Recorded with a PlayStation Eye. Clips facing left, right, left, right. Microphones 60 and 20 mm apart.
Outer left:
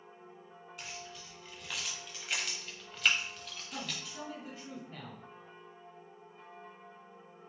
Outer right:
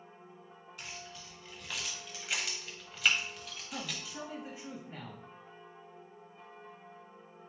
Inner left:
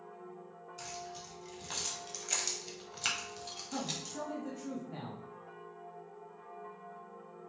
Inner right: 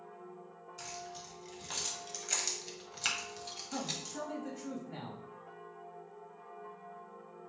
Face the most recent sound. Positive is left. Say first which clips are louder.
# outer right 1 dB, even
turn(degrees=-20)  # may be behind; listen again after turning